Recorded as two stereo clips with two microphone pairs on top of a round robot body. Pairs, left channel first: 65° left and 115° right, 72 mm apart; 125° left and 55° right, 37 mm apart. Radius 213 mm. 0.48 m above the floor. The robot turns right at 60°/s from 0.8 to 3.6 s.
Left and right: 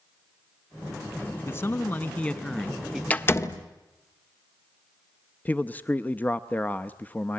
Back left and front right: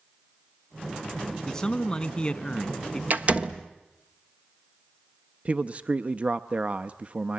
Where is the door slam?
10° right, 1.3 m; by 3.6 s 20° left, 1.3 m.